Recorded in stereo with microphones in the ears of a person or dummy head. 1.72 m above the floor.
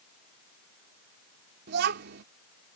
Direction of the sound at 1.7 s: 55° right (ahead or behind).